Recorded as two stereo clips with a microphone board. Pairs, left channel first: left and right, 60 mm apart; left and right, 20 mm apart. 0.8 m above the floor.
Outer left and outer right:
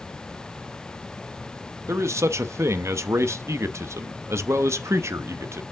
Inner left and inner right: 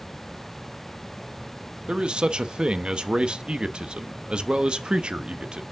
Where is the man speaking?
55° right (ahead or behind), 0.7 m.